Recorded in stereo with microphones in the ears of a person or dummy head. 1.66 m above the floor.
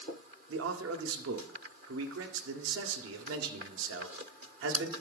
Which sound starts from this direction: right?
A man speaking, at 0.5 s.